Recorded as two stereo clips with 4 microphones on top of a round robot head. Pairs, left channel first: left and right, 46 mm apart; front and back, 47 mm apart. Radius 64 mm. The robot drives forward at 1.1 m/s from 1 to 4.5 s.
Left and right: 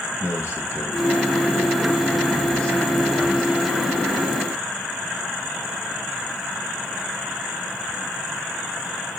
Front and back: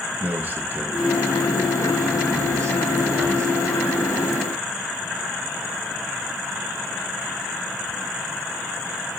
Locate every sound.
0.2 s a man speaking: 125° left, 1.2 m; by 3.5 s 165° left, 3.5 m